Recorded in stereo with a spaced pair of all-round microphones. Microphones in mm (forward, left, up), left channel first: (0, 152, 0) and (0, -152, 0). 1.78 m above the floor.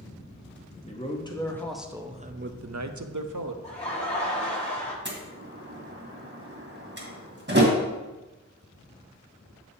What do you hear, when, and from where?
0.9 s a man speaking: 20° left (ahead or behind), 1.0 m; by 3.5 s 80° right, 0.8 m
3.6 s laughter: 20° left (ahead or behind), 2 m
5.0 s a door slam: 35° right (ahead or behind), 1.6 m